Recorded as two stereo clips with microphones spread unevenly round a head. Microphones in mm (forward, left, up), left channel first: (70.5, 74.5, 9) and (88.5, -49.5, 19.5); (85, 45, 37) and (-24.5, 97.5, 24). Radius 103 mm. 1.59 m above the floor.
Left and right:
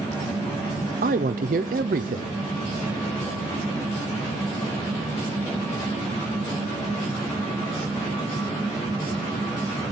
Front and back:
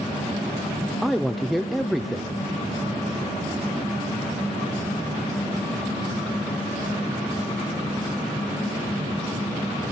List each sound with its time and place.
1.0 s a man speaking: 115° right, 0.6 m